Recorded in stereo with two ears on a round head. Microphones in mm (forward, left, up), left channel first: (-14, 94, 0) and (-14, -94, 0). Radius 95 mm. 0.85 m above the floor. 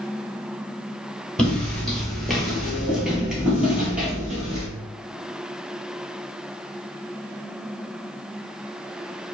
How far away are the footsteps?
About 0.9 m.